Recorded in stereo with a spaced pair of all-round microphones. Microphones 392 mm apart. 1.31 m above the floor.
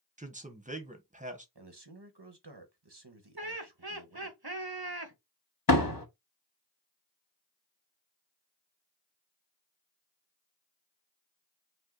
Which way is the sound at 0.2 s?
20° right (ahead or behind).